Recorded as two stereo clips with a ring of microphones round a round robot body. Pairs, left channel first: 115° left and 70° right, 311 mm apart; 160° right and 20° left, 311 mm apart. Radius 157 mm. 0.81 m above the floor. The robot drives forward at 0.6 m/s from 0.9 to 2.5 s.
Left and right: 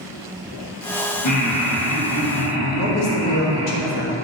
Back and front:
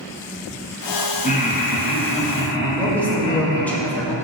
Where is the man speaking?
120° left, 1.3 m.